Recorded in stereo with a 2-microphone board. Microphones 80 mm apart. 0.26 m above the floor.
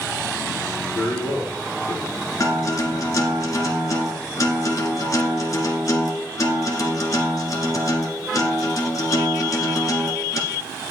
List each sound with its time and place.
0.9 s a man speaking: 30° left (ahead or behind), 5.5 m
2.4 s a guitar: 45° left (ahead or behind), 1.7 m